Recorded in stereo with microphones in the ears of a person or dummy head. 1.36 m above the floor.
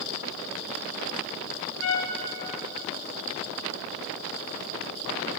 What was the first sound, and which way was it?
A trumpet, 90° left.